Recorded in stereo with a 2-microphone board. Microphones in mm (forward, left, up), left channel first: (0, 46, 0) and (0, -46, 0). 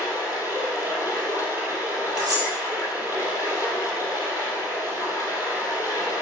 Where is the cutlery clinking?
40° right (ahead or behind), 6 m.